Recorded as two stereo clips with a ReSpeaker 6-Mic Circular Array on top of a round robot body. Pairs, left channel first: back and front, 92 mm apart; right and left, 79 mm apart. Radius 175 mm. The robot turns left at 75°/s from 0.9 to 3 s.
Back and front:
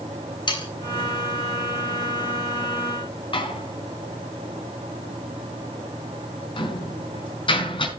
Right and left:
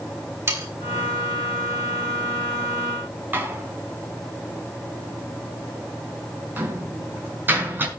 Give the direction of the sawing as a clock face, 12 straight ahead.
7 o'clock.